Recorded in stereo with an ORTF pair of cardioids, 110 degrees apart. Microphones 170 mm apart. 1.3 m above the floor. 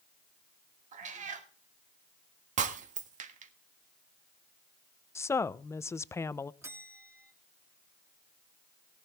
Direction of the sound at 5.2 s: 15° left.